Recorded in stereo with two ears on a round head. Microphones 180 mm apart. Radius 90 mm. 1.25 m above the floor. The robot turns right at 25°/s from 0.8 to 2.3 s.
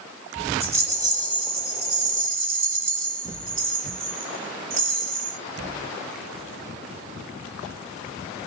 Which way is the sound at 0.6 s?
15° right (ahead or behind).